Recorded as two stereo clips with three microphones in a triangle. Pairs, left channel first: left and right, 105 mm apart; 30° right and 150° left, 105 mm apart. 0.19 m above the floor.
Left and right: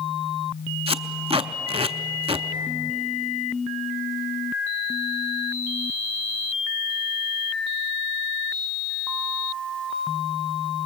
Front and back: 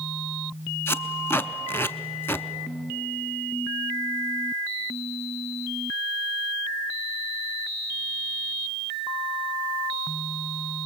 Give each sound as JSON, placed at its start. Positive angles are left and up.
{"t": 0.9, "sound": "tape being pulled", "azimuth_deg": -95, "distance_m": 0.6}